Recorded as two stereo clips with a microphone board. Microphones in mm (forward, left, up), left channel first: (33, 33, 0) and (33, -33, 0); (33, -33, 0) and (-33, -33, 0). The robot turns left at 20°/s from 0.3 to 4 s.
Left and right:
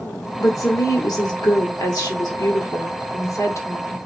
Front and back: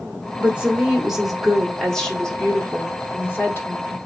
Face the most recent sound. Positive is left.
turn(degrees=40)